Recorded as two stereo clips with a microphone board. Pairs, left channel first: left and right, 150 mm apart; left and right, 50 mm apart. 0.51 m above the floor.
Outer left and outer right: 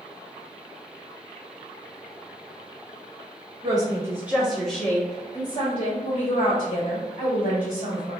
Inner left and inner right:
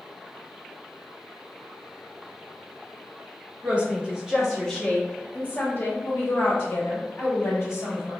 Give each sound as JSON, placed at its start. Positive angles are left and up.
{"t": 3.6, "sound": "a woman speaking", "side_deg": -25, "distance_m": 1.2}